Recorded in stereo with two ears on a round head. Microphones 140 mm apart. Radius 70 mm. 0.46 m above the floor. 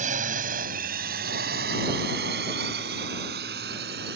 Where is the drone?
50° right (ahead or behind); by 4.2 s 70° right (ahead or behind).